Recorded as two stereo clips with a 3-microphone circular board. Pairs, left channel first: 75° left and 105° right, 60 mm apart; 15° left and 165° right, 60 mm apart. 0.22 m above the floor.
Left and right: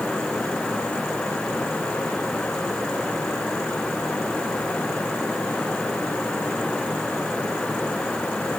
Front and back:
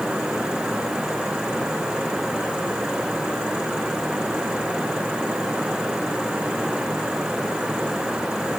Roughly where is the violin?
No violin in this recording.